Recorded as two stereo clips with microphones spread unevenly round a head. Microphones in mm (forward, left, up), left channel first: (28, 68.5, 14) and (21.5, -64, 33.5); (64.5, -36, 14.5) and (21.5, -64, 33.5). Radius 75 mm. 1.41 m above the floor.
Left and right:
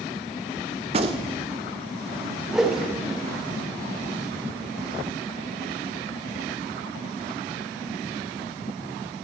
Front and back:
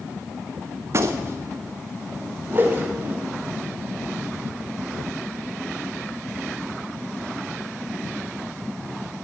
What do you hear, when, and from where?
0.9 s a gunshot: 140° right, 0.7 m
2.5 s a whoosh: 170° right, 0.8 m